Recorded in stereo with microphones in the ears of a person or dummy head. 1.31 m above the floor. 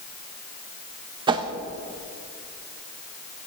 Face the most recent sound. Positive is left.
turn(degrees=-25)  # may be behind; listen again after turning